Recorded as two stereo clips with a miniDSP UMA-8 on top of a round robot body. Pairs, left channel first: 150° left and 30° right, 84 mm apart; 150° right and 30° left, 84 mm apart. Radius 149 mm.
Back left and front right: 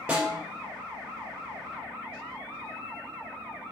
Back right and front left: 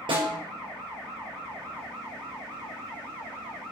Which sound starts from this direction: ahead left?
A snare drum, at 0.1 s.